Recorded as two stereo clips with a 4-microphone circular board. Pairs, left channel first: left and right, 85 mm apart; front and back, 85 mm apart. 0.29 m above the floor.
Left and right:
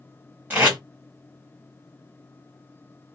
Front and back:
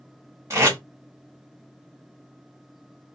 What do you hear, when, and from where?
0.5 s tape being pulled: 145° right, 1.4 m